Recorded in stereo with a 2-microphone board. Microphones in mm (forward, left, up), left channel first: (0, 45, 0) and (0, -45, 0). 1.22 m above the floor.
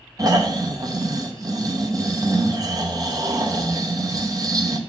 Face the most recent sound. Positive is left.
turn(degrees=-40)  # may be behind; listen again after turning